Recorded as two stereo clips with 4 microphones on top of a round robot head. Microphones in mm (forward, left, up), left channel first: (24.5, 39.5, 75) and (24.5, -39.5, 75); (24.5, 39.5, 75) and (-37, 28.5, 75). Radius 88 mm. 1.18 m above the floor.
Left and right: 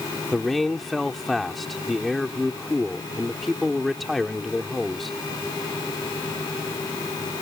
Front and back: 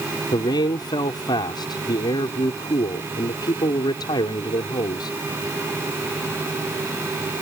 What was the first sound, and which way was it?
A man speaking, straight ahead.